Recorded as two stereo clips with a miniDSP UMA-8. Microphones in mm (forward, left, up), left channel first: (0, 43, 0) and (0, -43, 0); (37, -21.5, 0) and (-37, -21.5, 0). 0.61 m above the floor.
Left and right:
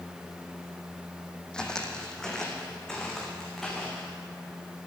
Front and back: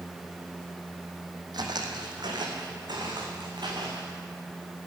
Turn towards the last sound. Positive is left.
turn(degrees=175)